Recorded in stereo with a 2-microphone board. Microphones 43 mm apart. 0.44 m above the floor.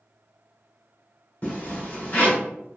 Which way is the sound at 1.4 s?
40° left (ahead or behind).